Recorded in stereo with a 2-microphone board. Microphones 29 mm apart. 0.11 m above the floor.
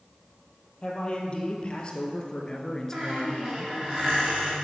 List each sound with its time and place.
0.8 s a man speaking: 35° left (ahead or behind), 2.5 m; by 3.8 s 5° right (ahead or behind), 1.2 m
2.9 s a squeak: 15° right (ahead or behind), 4 m